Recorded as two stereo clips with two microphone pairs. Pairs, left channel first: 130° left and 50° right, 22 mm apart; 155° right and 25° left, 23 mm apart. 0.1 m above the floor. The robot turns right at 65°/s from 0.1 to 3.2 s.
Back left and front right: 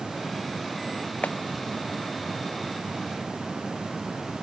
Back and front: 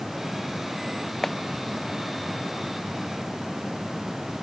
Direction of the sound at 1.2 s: 125° left.